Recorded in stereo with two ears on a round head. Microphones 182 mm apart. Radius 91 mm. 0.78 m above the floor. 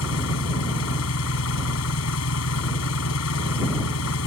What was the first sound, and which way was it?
An engine running, 85° left.